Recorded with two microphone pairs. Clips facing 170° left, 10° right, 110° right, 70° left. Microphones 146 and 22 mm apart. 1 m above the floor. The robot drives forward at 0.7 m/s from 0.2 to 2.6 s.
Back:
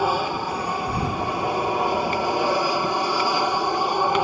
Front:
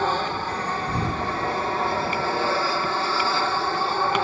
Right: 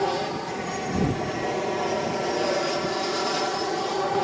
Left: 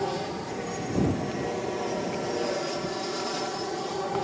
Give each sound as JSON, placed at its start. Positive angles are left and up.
{"t": 0.0, "sound": "an aircraft", "azimuth_deg": -130}